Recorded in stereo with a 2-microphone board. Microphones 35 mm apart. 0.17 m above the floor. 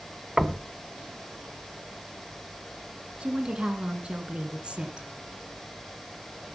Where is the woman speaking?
30° right (ahead or behind), 2 m.